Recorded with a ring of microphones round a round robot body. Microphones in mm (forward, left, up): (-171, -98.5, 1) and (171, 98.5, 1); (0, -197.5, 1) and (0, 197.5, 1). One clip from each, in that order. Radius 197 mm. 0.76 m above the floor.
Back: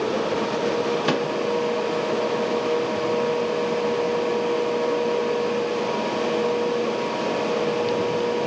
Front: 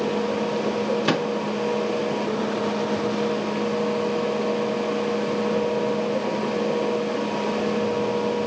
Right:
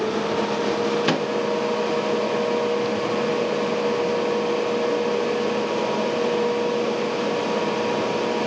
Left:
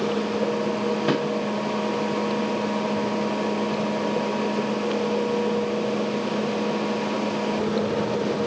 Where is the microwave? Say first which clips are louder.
Even, right 1 dB; 60° right, 1.3 m.